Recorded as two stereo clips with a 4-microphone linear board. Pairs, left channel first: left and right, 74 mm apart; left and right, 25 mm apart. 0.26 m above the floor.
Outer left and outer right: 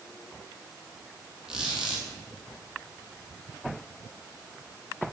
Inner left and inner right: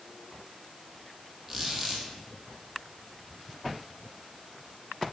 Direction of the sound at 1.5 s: 10° right (ahead or behind).